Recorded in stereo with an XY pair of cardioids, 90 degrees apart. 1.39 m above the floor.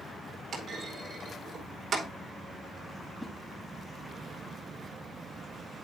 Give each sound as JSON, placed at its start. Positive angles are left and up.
{"t": 0.5, "sound": "a clunk", "azimuth_deg": -60, "distance_m": 3.0}
{"t": 3.2, "sound": "a whoosh", "azimuth_deg": 5, "distance_m": 3.5}